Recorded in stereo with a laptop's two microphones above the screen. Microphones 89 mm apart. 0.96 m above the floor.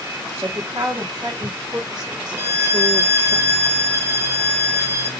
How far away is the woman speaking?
About 4 m.